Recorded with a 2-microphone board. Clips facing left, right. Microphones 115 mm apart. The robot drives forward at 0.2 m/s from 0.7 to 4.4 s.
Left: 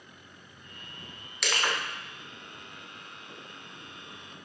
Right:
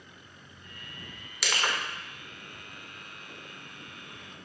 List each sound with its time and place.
1.4 s crushing: centre (ahead or behind), 0.6 m